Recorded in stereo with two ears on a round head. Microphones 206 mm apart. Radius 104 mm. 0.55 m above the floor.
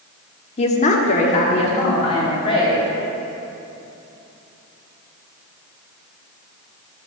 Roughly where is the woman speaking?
Left.